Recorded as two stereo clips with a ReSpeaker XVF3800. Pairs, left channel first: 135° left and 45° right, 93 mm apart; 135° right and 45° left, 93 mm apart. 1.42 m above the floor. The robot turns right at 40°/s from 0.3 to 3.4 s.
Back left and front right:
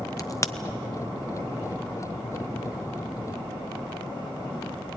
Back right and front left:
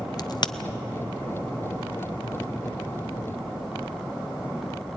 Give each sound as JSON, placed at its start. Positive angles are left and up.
{"t": 0.2, "sound": "a crack", "azimuth_deg": -175, "distance_m": 0.7}